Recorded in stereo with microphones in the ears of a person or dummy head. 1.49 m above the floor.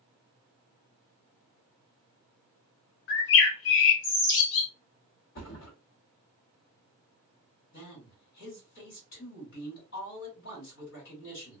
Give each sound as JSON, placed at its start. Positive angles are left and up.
{"t": 3.1, "sound": "a bird", "side_deg": 60, "distance_m": 0.6}
{"t": 5.3, "sound": "a thud", "side_deg": 50, "distance_m": 1.2}
{"t": 7.7, "sound": "a man speaking", "side_deg": 60, "distance_m": 2.0}